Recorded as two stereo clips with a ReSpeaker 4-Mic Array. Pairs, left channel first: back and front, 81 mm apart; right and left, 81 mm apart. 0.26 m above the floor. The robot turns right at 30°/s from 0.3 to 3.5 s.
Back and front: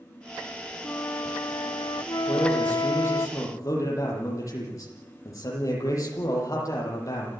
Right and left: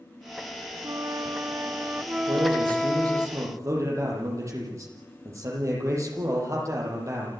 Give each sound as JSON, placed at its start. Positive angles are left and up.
{"t": 0.8, "sound": "a flute", "azimuth_deg": 125, "distance_m": 0.6}
{"t": 2.3, "sound": "a man speaking", "azimuth_deg": 100, "distance_m": 9.5}